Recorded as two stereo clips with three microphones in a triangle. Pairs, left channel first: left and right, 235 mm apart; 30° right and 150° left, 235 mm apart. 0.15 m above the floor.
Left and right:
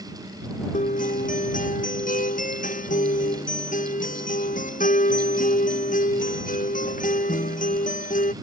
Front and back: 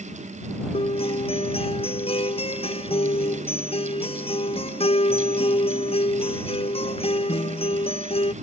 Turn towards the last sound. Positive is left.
turn(degrees=35)